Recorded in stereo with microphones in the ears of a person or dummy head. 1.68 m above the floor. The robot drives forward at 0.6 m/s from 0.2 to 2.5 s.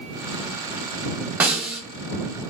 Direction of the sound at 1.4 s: 10° right (ahead or behind).